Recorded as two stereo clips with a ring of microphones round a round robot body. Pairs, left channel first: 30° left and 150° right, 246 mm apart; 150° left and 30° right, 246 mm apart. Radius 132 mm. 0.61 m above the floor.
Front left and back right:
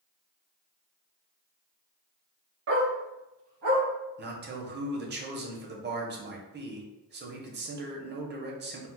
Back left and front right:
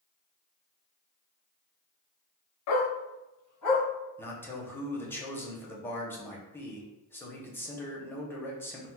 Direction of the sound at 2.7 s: 170° left.